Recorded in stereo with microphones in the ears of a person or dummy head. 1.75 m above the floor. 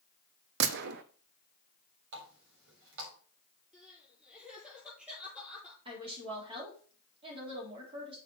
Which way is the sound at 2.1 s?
75° right (ahead or behind).